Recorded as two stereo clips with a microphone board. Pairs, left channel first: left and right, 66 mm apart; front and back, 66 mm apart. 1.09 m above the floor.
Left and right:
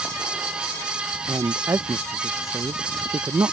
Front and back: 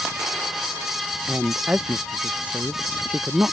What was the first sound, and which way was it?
A man speaking, 110° right.